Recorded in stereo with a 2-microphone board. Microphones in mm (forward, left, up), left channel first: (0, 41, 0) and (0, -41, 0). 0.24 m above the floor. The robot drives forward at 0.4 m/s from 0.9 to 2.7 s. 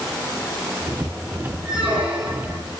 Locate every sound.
1.6 s a squeak: 10° right (ahead or behind), 4 m